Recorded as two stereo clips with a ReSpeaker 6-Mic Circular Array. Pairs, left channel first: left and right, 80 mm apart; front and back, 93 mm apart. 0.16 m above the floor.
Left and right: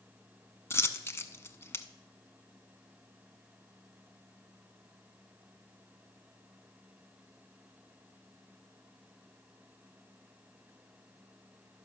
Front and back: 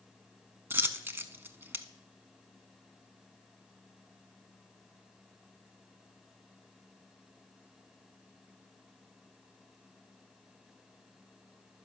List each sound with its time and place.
0.7 s a dropped coin: 125° left, 0.6 m